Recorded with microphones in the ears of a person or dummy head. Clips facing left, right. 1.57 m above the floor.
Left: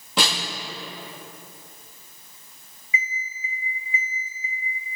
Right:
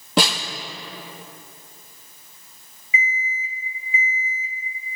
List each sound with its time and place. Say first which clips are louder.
0.2 s a snare drum: right 5 dB; 50° right (ahead or behind), 2.5 m
2.9 s an alarm clock: right 5 dB; 25° right (ahead or behind), 2.5 m